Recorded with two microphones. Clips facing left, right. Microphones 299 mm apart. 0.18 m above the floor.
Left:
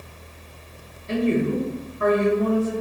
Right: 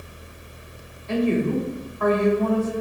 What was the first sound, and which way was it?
A woman speaking, 20° left (ahead or behind).